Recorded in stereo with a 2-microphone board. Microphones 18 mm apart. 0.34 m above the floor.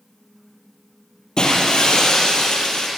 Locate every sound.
1.4 s breaking glass: 55° left (ahead or behind), 5 m